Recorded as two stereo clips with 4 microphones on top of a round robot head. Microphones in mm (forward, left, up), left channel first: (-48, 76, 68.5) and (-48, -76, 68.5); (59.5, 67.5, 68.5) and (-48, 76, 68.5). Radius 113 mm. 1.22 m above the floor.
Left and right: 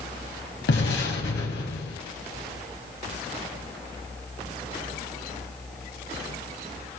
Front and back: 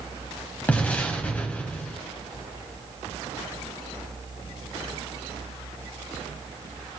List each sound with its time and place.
0.7 s an explosion: 70° left, 2.5 m